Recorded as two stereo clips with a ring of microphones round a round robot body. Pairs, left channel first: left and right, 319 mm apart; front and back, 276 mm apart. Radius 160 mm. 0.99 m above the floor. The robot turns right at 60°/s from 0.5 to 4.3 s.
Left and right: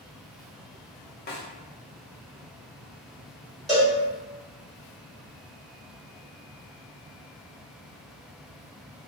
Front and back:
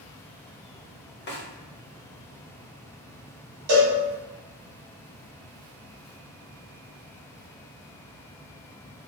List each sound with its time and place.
1.3 s a snare drum: 35° left, 0.9 m; by 1.5 s 50° left, 0.9 m
3.7 s a cowbell: straight behind, 2.0 m; by 4.0 s 165° right, 2.0 m